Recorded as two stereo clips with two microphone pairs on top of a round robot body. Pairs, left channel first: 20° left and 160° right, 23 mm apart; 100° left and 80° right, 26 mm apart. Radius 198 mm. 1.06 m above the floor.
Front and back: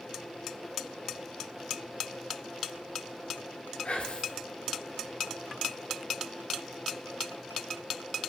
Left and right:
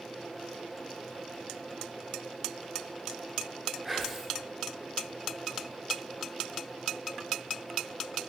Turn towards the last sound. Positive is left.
turn(degrees=-10)